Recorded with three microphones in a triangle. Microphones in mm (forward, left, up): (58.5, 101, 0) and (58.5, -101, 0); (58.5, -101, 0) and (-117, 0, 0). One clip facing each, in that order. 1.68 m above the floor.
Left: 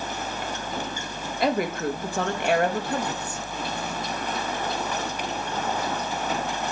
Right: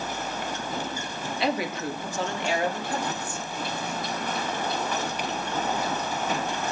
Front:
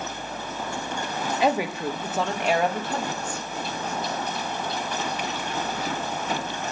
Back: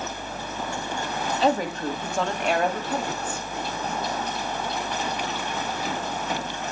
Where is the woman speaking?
45° left, 2.5 m; by 3.5 s 70° left, 3 m.